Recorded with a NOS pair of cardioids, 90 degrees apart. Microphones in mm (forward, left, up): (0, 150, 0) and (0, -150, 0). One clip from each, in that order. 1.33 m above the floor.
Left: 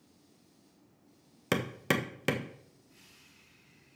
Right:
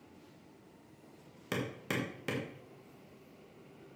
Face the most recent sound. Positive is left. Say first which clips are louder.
# left 6 dB
turn(degrees=50)